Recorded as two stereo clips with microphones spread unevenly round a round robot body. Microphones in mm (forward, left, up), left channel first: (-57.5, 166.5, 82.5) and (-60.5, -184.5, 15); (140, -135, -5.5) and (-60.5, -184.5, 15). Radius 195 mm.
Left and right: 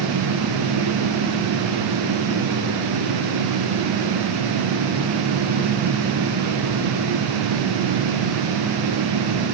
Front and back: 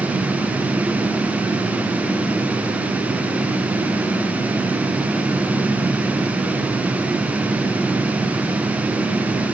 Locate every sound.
Only background noise.